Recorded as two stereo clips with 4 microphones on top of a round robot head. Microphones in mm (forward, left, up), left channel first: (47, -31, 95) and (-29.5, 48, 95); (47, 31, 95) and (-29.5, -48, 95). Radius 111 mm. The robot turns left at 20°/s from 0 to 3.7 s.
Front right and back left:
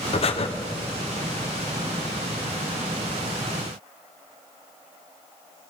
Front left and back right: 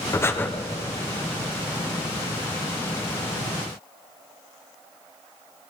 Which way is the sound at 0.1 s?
20° right.